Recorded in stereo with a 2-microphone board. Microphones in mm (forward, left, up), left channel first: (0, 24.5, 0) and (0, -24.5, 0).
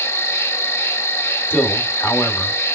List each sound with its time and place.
0.0 s an insect: 75° left (ahead or behind), 0.8 m
1.5 s a man speaking: 45° left (ahead or behind), 1.3 m